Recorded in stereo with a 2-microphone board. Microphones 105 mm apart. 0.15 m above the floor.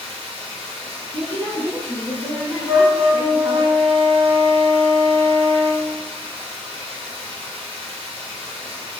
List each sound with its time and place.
0.0 s running water: 60° right (ahead or behind), 2.0 m
1.1 s a woman speaking: 30° right (ahead or behind), 1.3 m
2.7 s a flute: 45° right (ahead or behind), 2.0 m